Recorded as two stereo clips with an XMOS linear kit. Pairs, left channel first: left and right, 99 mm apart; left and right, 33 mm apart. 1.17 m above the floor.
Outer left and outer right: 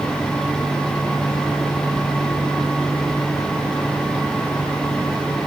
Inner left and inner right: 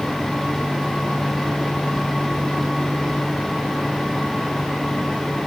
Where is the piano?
No piano in this recording.